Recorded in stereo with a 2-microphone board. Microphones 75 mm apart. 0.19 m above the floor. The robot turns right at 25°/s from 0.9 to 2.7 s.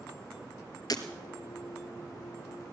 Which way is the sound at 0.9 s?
55° left (ahead or behind).